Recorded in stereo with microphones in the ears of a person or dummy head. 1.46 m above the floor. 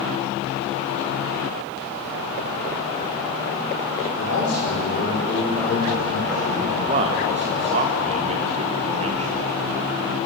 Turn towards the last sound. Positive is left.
turn(degrees=-35)  # may be behind; listen again after turning